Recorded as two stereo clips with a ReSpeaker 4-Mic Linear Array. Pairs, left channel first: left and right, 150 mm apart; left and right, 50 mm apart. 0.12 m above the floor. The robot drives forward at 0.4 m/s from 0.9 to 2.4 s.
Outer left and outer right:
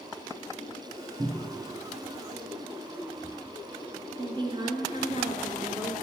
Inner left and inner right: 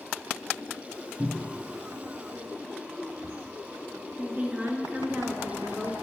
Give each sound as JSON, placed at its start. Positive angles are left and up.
{"t": 1.2, "sound": "a cupboard door", "side_deg": -30, "distance_m": 1.0}
{"t": 4.2, "sound": "a woman speaking", "side_deg": -30, "distance_m": 1.2}